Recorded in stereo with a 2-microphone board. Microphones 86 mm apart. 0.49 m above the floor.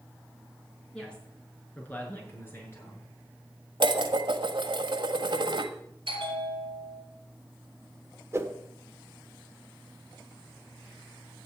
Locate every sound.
0.9 s a woman speaking: 10° left (ahead or behind), 5.5 m; by 3.1 s 30° left (ahead or behind), 6.5 m
3.8 s dishes clattering: 65° right (ahead or behind), 1.4 m
6.1 s a bell: 65° right (ahead or behind), 4 m
8.3 s a whoosh: 30° right (ahead or behind), 1.4 m